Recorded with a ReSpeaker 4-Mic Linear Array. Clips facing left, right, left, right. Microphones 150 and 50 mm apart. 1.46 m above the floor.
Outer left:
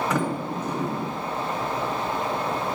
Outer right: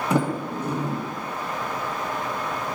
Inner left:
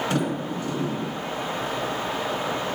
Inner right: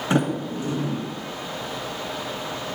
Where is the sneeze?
No sneeze in this recording.